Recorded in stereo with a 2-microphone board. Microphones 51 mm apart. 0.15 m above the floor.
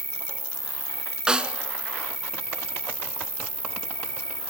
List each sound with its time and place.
0.0 s an insect: 60° left (ahead or behind), 1.1 m
1.3 s a snare drum: 15° right (ahead or behind), 1.5 m